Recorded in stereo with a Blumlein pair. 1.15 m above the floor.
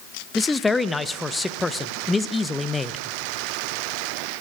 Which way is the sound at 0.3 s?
10° left.